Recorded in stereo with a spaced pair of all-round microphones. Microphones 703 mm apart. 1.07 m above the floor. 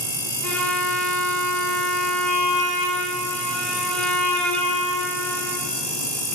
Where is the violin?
Centre (ahead or behind), 0.5 m.